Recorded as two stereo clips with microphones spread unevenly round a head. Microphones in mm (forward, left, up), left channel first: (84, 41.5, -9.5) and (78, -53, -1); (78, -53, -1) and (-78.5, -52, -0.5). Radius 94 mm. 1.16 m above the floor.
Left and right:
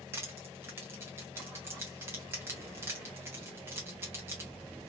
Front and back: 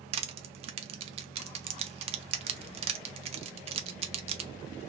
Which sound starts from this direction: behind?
Crushing, at 0.1 s.